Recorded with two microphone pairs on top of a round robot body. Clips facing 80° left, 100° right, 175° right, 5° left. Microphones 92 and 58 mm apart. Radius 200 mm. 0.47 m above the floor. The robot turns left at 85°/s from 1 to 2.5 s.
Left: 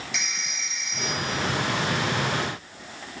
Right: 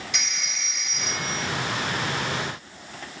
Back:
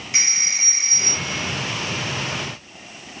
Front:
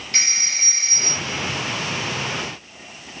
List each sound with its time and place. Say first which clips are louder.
0.1 s a phone ringing: even, even; 95° right, 6.5 m; by 1.5 s 135° right, 6.5 m